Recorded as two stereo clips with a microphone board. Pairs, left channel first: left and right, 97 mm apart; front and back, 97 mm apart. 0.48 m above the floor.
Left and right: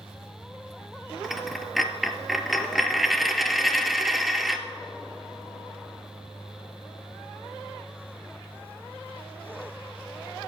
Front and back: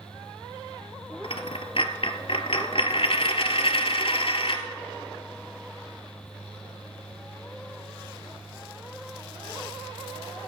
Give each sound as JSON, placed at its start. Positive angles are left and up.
{"t": 1.2, "sound": "a dropped coin", "azimuth_deg": 0, "distance_m": 0.9}